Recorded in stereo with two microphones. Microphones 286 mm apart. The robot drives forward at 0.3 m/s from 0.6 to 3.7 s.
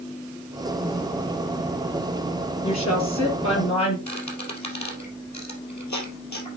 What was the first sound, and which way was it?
A woman speaking, 65° left (ahead or behind).